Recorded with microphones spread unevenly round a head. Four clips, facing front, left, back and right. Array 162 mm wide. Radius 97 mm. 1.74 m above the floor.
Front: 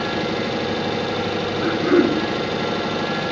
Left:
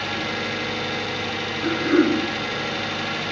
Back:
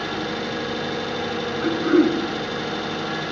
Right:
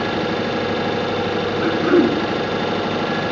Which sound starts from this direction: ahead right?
Throat clearing, at 1.6 s.